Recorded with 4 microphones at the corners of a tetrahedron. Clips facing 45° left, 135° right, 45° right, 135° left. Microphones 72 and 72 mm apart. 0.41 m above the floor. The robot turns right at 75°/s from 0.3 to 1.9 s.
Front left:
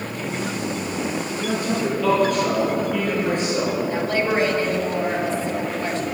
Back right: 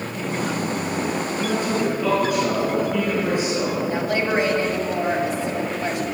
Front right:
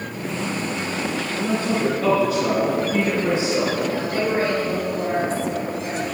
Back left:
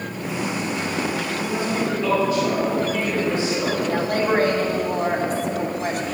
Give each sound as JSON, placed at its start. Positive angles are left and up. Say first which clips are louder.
{"t": 1.4, "sound": "a man speaking", "louder": "back right 1 dB, front right 4 dB", "azimuth_deg": -95, "distance_m": 4.5}
{"t": 3.9, "sound": "a woman speaking", "louder": "even, back left 2 dB", "azimuth_deg": 155, "distance_m": 3.0}